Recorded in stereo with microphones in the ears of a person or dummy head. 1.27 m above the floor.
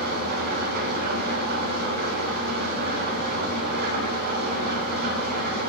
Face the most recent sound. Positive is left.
turn(degrees=-50)  # may be behind; listen again after turning